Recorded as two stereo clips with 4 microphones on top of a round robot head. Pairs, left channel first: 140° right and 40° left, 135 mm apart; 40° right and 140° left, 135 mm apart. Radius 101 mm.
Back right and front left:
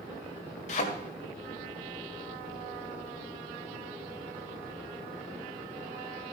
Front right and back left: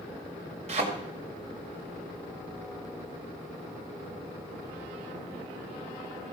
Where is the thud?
Straight behind, 2.0 m.